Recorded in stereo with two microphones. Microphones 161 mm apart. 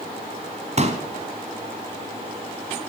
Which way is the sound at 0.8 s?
45° right (ahead or behind).